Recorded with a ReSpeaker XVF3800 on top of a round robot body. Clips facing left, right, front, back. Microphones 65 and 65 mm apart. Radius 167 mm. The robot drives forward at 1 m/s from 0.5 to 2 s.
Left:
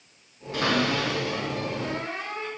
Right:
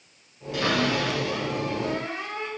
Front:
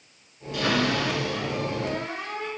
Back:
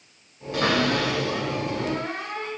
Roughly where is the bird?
I don't hear a bird.